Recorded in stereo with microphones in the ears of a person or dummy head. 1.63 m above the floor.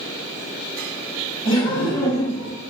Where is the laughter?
20° left (ahead or behind), 1.2 m.